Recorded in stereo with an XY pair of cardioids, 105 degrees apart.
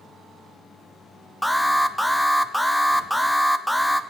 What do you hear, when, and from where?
1.4 s an alarm: 10° left, 0.7 m